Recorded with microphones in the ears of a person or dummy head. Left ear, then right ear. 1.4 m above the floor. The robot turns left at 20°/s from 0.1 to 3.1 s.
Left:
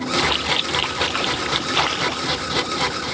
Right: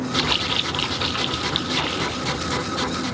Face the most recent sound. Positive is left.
turn(degrees=110)